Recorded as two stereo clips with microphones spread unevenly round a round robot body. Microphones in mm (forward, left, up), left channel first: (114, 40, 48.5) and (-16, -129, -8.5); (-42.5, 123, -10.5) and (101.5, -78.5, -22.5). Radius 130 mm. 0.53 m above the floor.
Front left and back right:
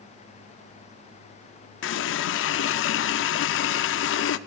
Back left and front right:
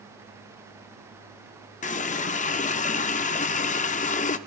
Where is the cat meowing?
I don't hear a cat meowing.